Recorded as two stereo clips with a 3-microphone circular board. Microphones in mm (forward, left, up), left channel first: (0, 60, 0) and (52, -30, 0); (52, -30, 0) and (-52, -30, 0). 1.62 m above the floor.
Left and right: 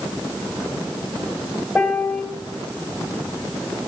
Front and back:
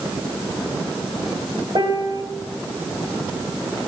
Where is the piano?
155° right, 2.5 m.